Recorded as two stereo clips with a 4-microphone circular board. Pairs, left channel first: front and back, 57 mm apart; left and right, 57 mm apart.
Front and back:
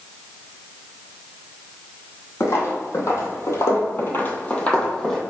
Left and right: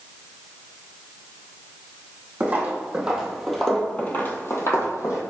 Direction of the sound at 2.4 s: 30° right.